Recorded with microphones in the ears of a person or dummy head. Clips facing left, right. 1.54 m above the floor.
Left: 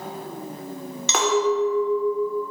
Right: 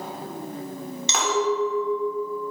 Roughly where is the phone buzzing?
No phone buzzing in this recording.